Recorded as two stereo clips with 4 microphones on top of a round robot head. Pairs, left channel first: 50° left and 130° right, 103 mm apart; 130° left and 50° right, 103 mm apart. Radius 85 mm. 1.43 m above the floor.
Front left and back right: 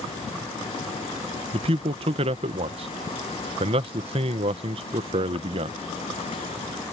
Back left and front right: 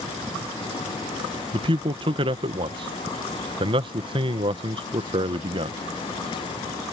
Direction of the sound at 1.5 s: 95° right.